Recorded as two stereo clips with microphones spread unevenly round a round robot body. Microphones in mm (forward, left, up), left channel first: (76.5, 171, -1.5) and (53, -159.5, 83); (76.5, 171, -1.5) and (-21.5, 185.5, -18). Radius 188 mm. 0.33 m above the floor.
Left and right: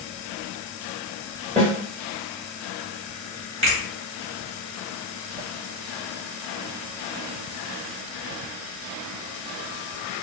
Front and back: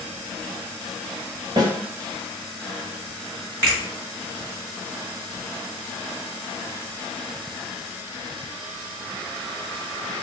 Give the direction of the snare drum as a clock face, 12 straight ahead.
6 o'clock.